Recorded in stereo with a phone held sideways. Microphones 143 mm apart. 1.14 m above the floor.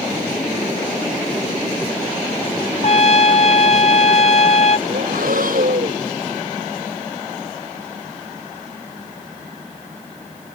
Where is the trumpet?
50° left (ahead or behind).